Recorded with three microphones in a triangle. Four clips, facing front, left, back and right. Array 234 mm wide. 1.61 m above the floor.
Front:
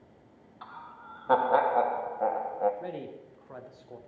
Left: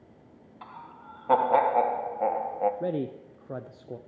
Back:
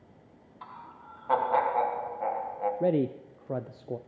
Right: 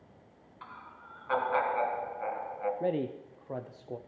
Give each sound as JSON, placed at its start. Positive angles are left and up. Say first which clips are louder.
{"t": 0.6, "sound": "laughter", "louder": "left 4 dB, even", "azimuth_deg": 55, "distance_m": 1.3}
{"t": 2.8, "sound": "a man speaking", "louder": "left 1 dB, back 12 dB", "azimuth_deg": 165, "distance_m": 0.6}